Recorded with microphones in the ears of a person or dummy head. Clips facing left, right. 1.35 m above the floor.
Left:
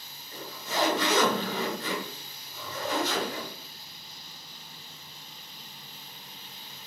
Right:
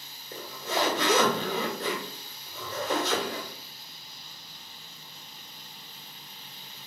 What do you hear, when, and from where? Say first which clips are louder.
0.3 s a zipper: right 2 dB; 55° right (ahead or behind), 1.1 m